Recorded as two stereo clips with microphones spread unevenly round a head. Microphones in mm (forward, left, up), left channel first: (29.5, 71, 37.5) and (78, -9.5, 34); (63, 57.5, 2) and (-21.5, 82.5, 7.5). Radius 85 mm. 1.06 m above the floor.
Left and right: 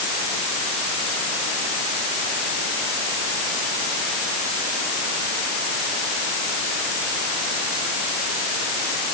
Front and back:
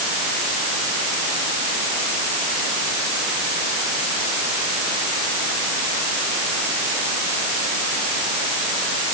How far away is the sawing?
No sawing in this recording.